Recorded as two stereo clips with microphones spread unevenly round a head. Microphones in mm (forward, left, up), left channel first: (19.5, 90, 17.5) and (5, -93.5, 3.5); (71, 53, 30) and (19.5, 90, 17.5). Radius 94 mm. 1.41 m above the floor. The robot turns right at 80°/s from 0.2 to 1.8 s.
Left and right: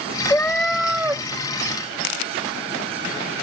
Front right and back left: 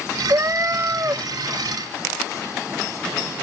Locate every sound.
0.3 s a cat meowing: 125° left; by 1.2 s 160° right